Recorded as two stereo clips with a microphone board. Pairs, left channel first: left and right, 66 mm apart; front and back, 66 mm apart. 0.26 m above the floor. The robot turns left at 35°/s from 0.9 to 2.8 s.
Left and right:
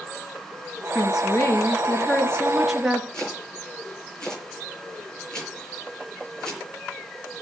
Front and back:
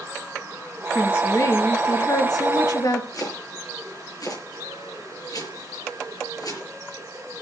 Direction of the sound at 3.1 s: 10° left.